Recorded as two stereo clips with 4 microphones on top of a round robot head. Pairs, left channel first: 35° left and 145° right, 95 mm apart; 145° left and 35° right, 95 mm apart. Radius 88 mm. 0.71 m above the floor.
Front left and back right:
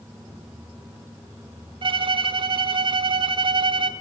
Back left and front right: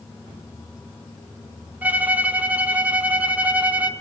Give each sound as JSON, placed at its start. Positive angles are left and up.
{"t": 1.8, "sound": "a violin", "azimuth_deg": -110, "distance_m": 0.7}